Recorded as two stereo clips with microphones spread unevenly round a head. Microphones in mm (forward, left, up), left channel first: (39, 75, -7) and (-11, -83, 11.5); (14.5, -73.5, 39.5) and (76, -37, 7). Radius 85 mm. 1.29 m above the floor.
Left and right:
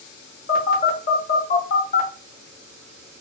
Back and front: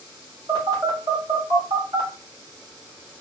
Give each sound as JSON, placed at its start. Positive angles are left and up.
{"t": 0.5, "sound": "a phone buzzing", "azimuth_deg": 105, "distance_m": 0.9}